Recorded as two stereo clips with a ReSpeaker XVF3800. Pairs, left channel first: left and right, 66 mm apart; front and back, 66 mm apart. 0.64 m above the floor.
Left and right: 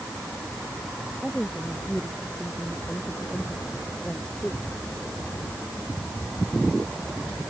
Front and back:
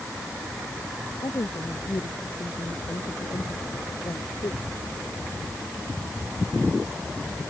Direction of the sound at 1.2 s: 5° left.